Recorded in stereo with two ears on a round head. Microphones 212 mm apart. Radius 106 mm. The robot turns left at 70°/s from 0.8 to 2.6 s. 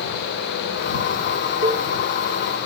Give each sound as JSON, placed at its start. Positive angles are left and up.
{"t": 1.6, "sound": "a cowbell", "side_deg": -25}